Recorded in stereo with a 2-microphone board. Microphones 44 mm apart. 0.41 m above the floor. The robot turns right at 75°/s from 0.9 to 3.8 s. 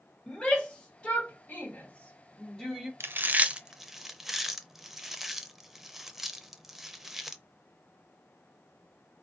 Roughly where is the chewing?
Right.